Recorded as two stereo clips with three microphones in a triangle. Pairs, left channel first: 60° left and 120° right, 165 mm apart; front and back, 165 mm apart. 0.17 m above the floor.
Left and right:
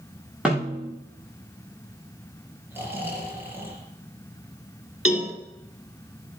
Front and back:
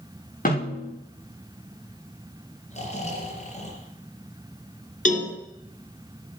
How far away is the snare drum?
About 8 m.